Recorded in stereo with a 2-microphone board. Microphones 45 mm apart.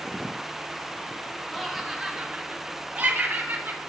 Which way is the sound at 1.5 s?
5° left (ahead or behind).